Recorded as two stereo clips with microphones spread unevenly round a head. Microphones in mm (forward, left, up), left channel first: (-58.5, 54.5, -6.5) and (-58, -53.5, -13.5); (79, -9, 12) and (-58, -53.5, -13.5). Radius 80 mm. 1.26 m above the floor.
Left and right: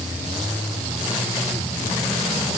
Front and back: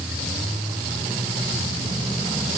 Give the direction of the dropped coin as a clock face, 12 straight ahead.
No dropped coin in this recording.